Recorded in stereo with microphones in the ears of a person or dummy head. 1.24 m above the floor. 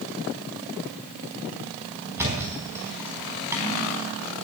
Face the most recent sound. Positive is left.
turn(degrees=-5)  # may be behind; listen again after turning